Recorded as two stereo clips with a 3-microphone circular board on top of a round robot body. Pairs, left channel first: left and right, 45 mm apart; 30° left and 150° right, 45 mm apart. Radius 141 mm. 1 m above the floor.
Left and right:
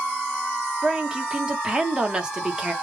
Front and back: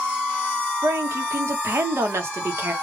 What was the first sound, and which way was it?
A woman speaking, 160° right.